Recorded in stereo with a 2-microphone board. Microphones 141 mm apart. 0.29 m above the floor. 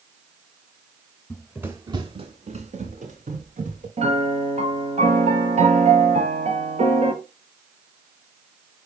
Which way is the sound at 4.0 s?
55° right (ahead or behind).